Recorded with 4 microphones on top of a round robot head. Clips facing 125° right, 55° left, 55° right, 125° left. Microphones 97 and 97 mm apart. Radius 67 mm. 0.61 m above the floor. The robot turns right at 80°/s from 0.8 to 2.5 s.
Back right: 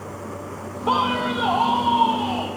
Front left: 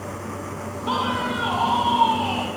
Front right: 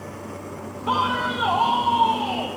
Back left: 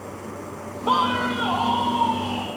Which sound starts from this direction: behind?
A man speaking, at 0.9 s.